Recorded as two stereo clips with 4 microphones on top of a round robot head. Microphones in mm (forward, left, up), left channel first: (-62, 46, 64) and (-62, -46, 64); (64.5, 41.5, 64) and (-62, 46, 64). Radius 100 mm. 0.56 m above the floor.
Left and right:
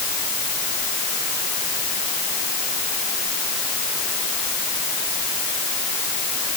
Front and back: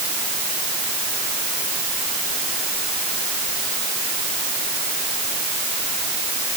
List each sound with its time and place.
Only background noise.